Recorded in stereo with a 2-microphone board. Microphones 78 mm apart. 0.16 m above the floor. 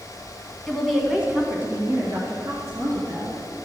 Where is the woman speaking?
5° left (ahead or behind), 1.6 m; by 3.4 s 40° right (ahead or behind), 3.5 m.